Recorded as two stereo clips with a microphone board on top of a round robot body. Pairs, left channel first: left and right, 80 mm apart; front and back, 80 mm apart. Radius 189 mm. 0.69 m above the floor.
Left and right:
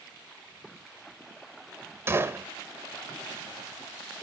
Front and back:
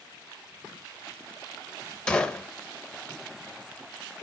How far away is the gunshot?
About 1.2 m.